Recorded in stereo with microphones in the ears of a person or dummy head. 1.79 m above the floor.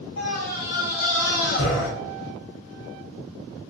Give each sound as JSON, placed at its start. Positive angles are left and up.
{"t": 0.2, "sound": "a scream", "side_deg": 50, "distance_m": 1.1}